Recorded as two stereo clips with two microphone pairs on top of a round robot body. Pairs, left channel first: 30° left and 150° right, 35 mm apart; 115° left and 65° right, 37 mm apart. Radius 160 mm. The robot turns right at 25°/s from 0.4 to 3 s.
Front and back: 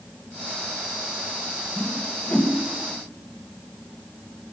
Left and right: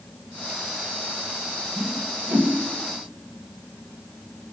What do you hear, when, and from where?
1.8 s a whoosh: 30° right, 2.5 m; by 2.5 s 10° right, 2.5 m